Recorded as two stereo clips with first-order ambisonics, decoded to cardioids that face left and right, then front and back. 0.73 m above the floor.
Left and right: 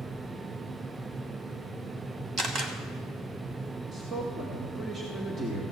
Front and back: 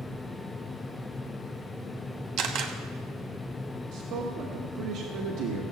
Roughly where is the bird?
No bird in this recording.